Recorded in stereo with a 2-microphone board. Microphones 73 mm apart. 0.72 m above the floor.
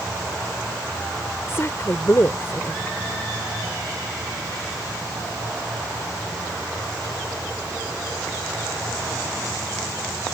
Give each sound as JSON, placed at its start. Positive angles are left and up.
{"t": 1.5, "sound": "a woman speaking", "side_deg": 40}